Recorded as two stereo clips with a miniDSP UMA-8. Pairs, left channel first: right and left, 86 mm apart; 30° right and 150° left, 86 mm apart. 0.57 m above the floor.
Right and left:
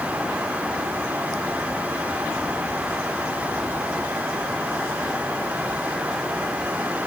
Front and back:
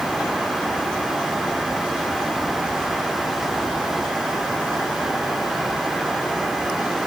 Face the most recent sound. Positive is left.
No sound to turn to.